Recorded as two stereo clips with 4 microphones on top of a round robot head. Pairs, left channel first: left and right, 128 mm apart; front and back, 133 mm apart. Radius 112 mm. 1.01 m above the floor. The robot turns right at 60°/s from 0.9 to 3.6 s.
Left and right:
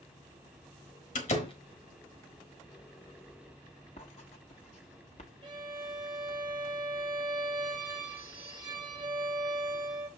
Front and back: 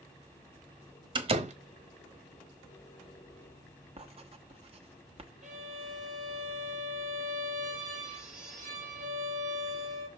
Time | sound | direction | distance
1.1 | a door slam | 130° left | 1.3 m
4.0 | writing | 140° left | 1.1 m
5.4 | a violin | 150° right | 2.5 m